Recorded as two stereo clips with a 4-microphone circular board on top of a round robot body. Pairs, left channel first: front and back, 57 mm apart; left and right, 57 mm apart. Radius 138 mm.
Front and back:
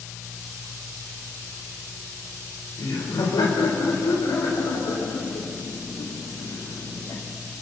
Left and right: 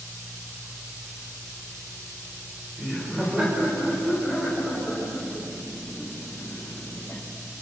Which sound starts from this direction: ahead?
Laughter, at 2.8 s.